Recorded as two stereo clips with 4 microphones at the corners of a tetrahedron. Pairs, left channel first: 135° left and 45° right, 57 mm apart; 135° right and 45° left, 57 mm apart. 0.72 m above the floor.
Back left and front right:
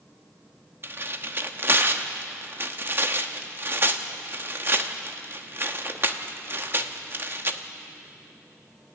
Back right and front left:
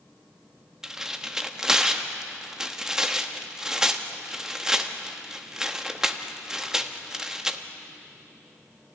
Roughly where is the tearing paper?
Ahead right.